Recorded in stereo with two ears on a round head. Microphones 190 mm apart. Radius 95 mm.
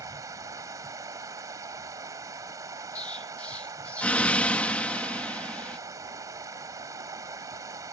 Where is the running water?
15° right (ahead or behind).